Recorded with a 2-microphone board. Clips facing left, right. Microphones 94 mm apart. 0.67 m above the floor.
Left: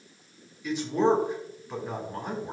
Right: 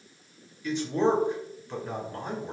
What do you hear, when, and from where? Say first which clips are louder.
0.6 s a man speaking: left 1 dB; 10° left (ahead or behind), 1.7 m